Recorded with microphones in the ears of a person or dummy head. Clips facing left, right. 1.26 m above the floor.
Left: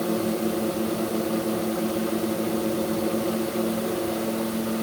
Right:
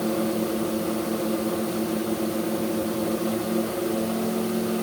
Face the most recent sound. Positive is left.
No sound to turn to.